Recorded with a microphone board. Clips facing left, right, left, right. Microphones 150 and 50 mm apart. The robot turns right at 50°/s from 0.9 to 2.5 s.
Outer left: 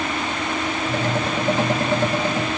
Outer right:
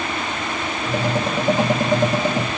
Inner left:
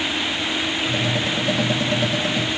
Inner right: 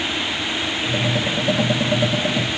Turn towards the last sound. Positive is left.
No sound to turn to.